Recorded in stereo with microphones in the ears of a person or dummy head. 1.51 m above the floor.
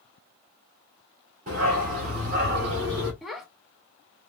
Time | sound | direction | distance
1.5 | a dog barking | 40° right (ahead or behind) | 1.8 m
3.2 | a child speaking | centre (ahead or behind) | 0.6 m